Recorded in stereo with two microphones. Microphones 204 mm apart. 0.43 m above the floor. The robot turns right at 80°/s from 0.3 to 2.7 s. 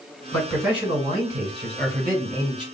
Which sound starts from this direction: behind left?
A man speaking, at 0.3 s.